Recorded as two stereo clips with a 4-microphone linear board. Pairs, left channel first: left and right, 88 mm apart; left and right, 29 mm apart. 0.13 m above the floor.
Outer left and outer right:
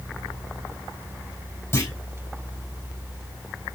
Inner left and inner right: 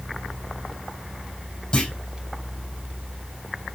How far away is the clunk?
About 5.5 m.